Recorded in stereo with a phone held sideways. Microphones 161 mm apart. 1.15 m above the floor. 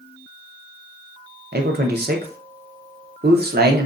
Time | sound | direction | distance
1.5 | a man speaking | 80° right | 0.6 m